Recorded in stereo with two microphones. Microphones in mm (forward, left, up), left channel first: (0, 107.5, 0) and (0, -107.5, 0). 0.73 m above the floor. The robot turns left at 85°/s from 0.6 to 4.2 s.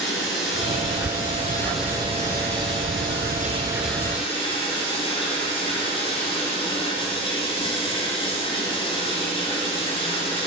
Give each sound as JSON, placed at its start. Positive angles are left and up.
{"t": 0.0, "sound": "running water", "azimuth_deg": 100, "distance_m": 1.9}